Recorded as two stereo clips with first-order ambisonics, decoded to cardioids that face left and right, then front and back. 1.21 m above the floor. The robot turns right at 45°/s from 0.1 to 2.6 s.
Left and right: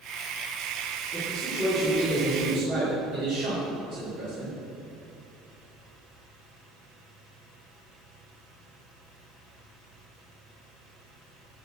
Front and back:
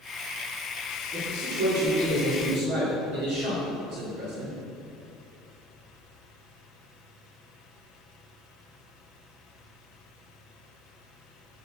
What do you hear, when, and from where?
1.1 s a man speaking: 155° left, 3.5 m; by 4.6 s 140° right, 3.5 m